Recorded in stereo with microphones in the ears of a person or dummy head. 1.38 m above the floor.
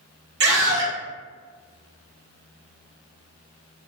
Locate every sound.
0.4 s a scream: 60° right (ahead or behind), 1.4 m